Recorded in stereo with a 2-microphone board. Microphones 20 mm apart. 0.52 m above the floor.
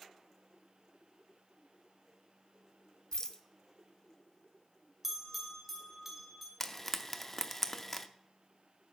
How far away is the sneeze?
I don't hear a sneeze.